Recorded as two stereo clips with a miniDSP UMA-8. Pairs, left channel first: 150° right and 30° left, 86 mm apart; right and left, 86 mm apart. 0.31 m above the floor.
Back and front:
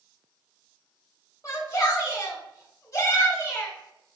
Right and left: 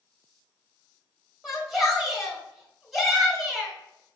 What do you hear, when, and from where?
1.4 s a shout: 175° left, 1.3 m